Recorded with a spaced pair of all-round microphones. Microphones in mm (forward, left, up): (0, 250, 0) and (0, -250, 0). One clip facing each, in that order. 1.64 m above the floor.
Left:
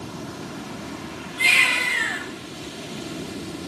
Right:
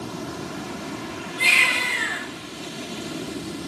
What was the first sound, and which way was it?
A baby crying, 10° left (ahead or behind).